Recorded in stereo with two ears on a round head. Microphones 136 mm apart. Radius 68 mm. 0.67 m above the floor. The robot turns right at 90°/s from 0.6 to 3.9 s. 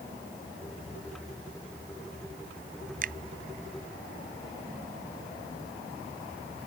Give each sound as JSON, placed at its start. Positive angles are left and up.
{"t": 3.0, "sound": "a finger snap", "side_deg": -60}